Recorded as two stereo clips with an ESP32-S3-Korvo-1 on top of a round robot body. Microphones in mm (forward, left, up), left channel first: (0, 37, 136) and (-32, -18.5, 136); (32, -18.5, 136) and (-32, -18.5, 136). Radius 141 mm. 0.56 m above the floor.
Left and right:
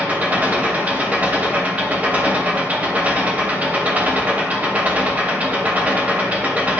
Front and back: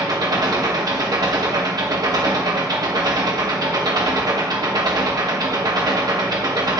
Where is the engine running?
170° left, 1.9 m.